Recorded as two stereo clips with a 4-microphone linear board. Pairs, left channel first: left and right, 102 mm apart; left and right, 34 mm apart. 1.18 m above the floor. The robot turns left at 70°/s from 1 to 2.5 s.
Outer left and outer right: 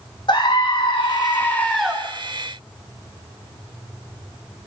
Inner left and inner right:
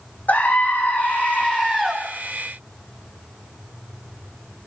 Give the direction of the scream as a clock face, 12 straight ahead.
10 o'clock.